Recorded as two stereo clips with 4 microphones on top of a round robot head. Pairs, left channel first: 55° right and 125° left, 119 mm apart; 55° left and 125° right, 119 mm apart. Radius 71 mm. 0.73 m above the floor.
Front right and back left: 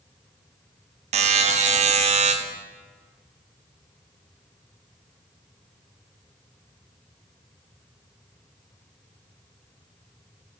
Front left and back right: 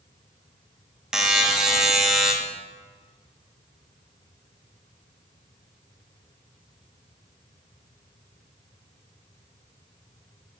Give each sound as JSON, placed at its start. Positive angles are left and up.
{"t": 1.1, "sound": "a buzzer", "azimuth_deg": 150, "distance_m": 0.7}